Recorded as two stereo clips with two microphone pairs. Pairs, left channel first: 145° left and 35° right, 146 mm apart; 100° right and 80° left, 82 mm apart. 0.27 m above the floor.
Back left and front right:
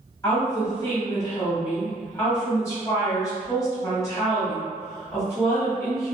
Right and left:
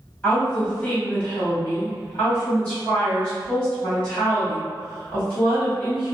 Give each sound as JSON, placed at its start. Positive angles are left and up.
{"t": 0.2, "sound": "a woman speaking", "azimuth_deg": -165, "distance_m": 1.8}